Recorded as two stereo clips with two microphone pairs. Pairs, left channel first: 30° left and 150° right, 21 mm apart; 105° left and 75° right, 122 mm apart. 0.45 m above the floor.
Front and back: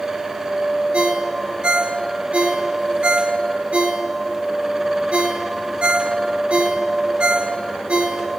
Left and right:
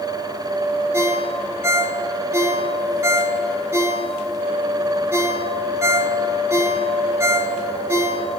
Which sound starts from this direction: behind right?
A ringtone, at 0.9 s.